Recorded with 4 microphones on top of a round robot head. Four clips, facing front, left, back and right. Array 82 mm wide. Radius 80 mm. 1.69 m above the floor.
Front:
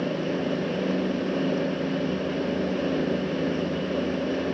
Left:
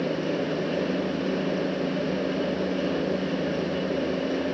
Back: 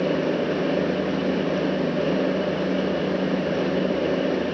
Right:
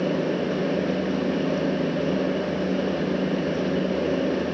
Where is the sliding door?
No sliding door in this recording.